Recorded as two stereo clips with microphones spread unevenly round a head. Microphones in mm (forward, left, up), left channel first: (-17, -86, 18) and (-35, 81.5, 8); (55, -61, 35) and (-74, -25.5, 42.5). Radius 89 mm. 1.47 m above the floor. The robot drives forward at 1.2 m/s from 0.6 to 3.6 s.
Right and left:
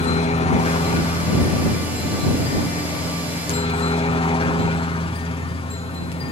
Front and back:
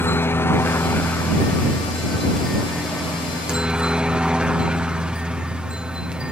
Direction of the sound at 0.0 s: 70° right.